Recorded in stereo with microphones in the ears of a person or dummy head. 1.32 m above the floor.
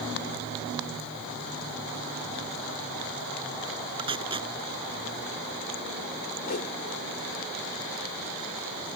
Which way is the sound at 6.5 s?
45° left (ahead or behind).